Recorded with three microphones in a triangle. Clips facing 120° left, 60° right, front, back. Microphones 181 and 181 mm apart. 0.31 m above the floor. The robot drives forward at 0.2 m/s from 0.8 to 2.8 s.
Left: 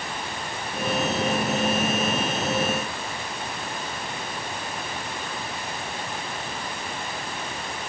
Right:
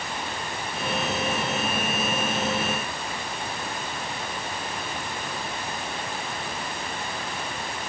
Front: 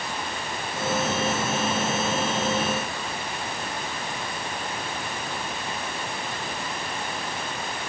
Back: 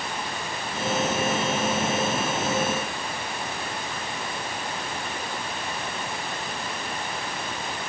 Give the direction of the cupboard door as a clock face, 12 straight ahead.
No cupboard door in this recording.